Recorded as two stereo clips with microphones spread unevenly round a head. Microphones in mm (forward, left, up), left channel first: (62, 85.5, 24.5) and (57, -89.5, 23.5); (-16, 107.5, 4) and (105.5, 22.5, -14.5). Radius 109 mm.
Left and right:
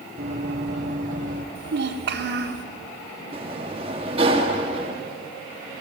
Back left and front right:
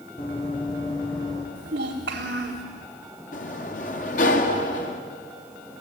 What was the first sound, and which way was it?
Running footsteps, 155° right.